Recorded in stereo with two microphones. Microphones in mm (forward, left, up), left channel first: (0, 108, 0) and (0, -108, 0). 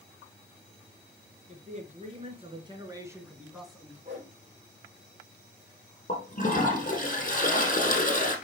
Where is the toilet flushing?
40° left (ahead or behind), 3.5 m.